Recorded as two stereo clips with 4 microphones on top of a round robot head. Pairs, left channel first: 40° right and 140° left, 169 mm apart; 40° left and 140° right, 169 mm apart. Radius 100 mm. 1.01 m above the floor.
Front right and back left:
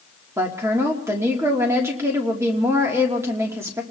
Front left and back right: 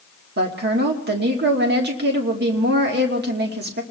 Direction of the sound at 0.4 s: 145° right.